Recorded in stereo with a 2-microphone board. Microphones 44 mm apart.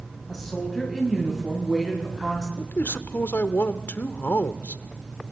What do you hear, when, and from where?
0.3 s a woman speaking: centre (ahead or behind), 4 m; by 2.5 s 10° right (ahead or behind), 5.5 m
2.6 s a man speaking: 50° left (ahead or behind), 1.1 m